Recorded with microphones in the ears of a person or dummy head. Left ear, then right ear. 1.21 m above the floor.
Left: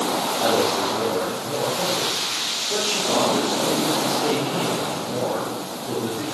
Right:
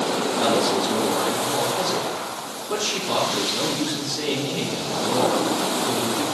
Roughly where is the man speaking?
Right.